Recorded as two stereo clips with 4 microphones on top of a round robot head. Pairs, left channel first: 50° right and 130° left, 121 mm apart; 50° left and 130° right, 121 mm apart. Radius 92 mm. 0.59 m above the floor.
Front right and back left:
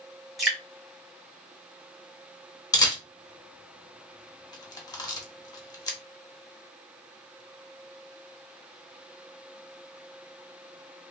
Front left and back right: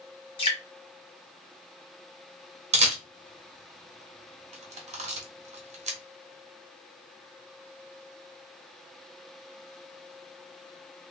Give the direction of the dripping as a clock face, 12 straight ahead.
11 o'clock.